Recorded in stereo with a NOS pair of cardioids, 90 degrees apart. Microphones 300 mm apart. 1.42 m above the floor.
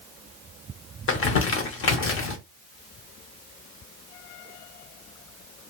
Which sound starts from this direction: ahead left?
Crumpling, at 1.1 s.